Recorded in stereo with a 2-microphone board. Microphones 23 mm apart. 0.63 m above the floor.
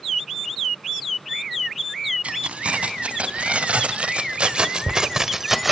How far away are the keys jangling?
About 3 m.